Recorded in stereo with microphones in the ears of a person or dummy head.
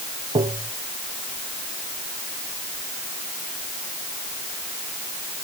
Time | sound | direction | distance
0.3 | tapping | 25° right (ahead or behind) | ?